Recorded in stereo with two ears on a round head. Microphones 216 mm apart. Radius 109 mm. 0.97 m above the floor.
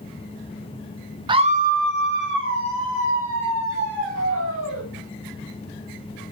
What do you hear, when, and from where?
1.3 s a scream: 20° right (ahead or behind), 1.0 m; by 4.8 s 60° right (ahead or behind), 5.5 m